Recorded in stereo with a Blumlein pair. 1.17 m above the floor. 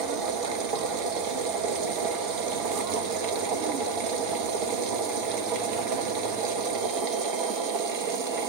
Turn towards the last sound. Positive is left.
turn(degrees=-40)